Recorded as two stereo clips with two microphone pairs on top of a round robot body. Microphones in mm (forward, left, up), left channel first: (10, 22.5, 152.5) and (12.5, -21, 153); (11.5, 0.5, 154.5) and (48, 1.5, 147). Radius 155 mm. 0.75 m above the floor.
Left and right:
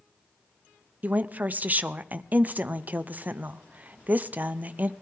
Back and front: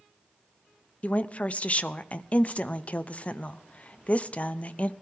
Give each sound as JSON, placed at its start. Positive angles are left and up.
{"t": 1.0, "sound": "a woman speaking", "azimuth_deg": -125, "distance_m": 0.8}